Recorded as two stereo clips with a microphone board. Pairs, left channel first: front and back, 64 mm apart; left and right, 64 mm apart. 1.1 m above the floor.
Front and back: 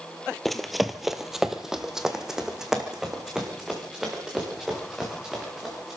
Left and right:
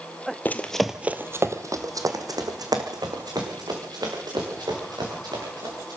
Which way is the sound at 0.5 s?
85° left.